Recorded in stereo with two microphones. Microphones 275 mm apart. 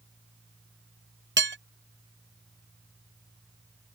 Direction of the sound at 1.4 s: 45° right (ahead or behind).